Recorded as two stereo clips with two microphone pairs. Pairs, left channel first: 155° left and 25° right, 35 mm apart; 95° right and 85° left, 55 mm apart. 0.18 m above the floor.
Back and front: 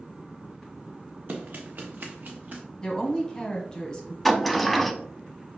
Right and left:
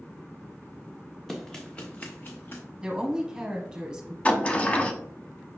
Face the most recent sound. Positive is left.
turn(degrees=-115)